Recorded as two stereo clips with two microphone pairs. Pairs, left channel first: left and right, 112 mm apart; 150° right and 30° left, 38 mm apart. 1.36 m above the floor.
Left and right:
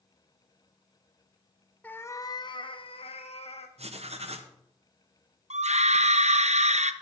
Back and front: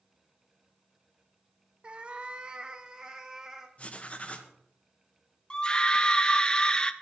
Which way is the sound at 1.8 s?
30° left.